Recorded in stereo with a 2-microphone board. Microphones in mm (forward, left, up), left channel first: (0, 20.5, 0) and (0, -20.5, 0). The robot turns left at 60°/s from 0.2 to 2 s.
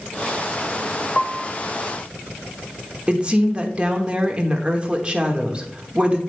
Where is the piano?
20° left (ahead or behind), 0.6 m; by 1.6 s 5° right (ahead or behind), 0.6 m.